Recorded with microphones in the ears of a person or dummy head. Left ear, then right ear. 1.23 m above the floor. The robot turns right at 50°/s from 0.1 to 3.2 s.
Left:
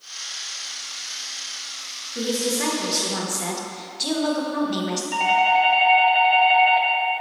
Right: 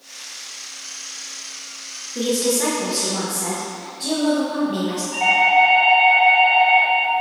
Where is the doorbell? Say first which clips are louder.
Right 3 dB; 50° left (ahead or behind), 1.0 m.